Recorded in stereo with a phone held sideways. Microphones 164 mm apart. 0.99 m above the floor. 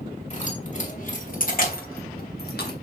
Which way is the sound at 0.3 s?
45° left (ahead or behind).